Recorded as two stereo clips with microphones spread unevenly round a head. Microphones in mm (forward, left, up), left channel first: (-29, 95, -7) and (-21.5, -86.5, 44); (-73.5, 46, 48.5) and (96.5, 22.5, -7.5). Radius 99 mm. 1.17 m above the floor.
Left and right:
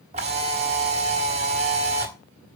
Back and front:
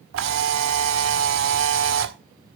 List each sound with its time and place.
0.1 s a camera shutter: 35° right, 1.7 m